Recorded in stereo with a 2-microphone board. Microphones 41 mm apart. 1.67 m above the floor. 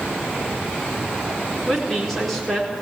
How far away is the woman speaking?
About 4.5 m.